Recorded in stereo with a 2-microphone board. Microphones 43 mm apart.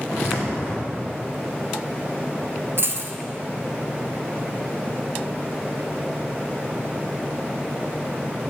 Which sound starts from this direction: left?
Footsteps, at 0.1 s.